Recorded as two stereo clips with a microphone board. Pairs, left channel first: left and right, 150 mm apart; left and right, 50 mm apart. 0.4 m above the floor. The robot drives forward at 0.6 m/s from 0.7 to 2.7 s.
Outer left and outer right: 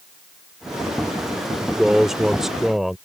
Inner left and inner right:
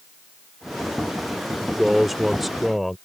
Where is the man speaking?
5° right (ahead or behind); by 3.0 s centre (ahead or behind).